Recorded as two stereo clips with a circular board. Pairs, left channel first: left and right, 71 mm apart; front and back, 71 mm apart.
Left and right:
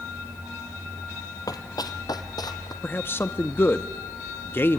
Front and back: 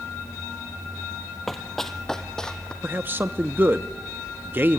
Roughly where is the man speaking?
Behind left.